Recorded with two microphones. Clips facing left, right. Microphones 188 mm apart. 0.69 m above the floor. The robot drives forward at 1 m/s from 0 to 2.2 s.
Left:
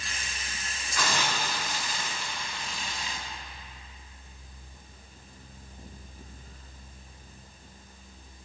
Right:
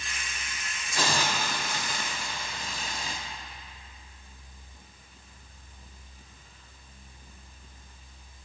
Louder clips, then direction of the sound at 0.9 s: Right 2 dB; 30° right (ahead or behind).